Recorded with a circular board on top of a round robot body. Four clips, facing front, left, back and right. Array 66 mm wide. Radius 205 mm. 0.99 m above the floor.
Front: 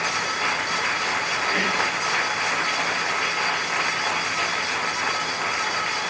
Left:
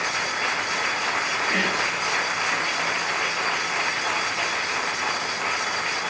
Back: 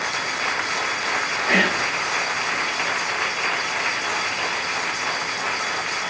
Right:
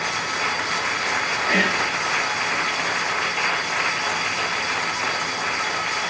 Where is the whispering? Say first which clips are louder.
Right 5 dB, back 5 dB; 160° right, 1.0 m.